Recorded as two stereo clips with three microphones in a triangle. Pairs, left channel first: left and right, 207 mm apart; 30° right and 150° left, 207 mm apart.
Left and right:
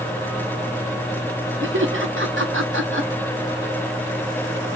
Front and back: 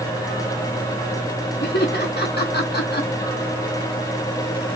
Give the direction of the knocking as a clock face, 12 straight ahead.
I don't hear knocking.